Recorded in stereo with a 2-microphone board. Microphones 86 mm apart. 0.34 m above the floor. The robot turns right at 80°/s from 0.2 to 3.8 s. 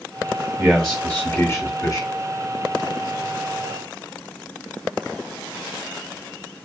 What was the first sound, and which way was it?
A man speaking, 10° right.